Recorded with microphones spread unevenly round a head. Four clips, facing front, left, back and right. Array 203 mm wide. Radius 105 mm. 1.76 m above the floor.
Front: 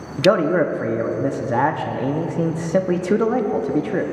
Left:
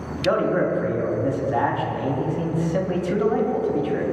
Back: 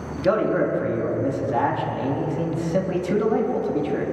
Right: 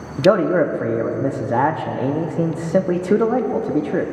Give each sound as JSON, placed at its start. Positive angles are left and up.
{"t": 0.2, "sound": "a man speaking", "azimuth_deg": -60, "distance_m": 0.8}